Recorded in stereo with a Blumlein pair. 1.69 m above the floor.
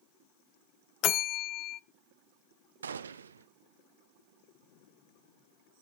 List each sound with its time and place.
1.0 s a bell: 35° left, 0.6 m
2.8 s a gunshot: 70° right, 0.7 m